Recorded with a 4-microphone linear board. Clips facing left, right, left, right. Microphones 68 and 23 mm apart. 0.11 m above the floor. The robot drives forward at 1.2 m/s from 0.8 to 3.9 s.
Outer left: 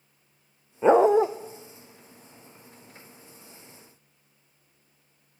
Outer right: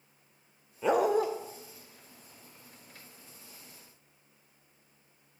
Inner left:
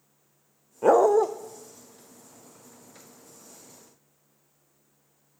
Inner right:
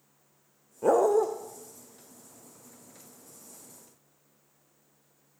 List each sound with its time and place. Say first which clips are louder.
0.8 s a dog barking: outer left 8 dB, inner left 4 dB; 30° left (ahead or behind), 1.6 m; by 1.3 s 25° left (ahead or behind), 2 m